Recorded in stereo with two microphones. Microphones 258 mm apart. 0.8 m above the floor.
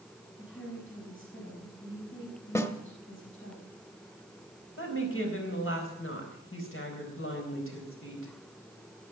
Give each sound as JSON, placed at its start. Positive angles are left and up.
{"t": 0.4, "sound": "a woman speaking", "side_deg": 45, "distance_m": 5.0}
{"t": 2.5, "sound": "a snare drum", "side_deg": 10, "distance_m": 1.2}
{"t": 4.8, "sound": "a woman speaking", "side_deg": 50, "distance_m": 4.0}